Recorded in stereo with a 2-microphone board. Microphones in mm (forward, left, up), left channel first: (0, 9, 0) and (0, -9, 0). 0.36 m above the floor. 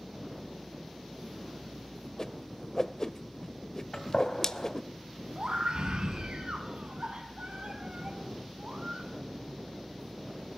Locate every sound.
2.2 s a whoosh: 35° left (ahead or behind), 0.6 m
3.9 s a gunshot: 60° left (ahead or behind), 2 m
5.3 s a scream: 65° right (ahead or behind), 3.5 m